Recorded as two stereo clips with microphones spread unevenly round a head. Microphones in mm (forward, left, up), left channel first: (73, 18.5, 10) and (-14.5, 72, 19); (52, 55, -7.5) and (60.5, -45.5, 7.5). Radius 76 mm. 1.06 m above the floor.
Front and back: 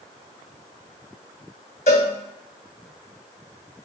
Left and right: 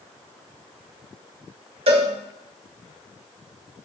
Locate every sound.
1.9 s a cowbell: 80° right, 1.4 m